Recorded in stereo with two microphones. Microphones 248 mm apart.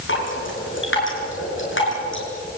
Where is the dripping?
50° left (ahead or behind), 6.5 m.